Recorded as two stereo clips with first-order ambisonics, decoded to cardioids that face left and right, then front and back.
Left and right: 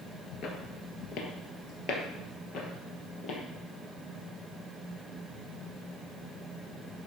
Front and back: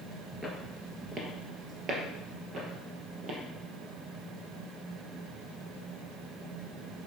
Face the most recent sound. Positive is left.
turn(degrees=135)